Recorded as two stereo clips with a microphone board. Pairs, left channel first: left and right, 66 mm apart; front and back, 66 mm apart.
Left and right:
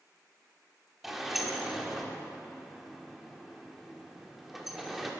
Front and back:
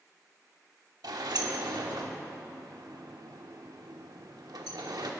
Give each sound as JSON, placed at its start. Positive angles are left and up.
{"t": 1.0, "sound": "a sliding door", "azimuth_deg": -175, "distance_m": 1.0}